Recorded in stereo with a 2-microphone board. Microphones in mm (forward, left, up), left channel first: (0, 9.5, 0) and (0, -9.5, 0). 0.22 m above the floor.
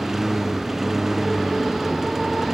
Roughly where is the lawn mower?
Right.